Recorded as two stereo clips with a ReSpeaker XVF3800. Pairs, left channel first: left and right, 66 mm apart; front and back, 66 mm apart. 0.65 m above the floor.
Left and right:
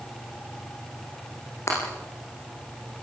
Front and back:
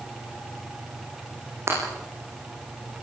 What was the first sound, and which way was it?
Breaking glass, 135° left.